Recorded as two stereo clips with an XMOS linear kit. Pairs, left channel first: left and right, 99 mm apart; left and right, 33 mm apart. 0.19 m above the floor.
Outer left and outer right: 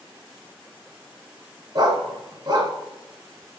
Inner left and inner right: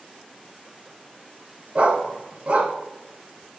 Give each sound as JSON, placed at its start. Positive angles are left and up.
{"t": 1.8, "sound": "a dog barking", "side_deg": -45, "distance_m": 0.6}